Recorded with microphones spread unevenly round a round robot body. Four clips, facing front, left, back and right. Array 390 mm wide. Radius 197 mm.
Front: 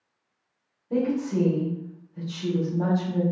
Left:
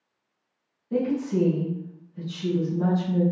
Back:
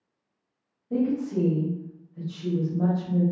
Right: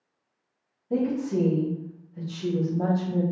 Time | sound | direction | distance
0.9 | a woman speaking | 55° right | 1.8 m